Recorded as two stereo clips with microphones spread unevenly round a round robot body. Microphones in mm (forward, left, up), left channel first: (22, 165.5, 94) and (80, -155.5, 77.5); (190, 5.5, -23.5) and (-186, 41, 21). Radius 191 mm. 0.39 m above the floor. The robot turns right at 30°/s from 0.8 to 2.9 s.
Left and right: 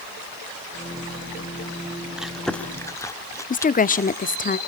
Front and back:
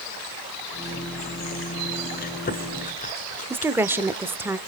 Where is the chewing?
Straight ahead, 1.5 m; by 4.5 s 25° left, 1.5 m.